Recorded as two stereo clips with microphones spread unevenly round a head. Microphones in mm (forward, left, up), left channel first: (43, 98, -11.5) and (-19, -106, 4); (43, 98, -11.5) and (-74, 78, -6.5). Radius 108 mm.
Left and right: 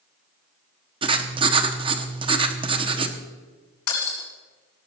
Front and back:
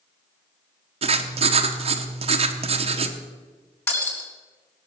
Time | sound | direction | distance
1.0 | writing | 165° right | 1.0 m
3.9 | breaking glass | 80° left | 4.5 m